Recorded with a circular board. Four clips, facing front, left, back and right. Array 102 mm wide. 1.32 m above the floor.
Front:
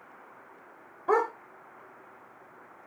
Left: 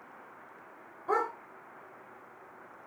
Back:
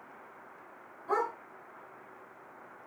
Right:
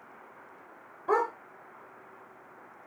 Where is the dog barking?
25° right, 2.5 m.